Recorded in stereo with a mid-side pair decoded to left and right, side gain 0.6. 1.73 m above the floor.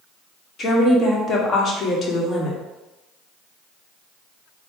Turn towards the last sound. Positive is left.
turn(degrees=35)